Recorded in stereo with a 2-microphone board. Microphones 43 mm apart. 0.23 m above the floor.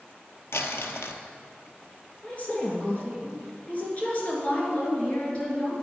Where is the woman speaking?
35° left (ahead or behind), 3 m.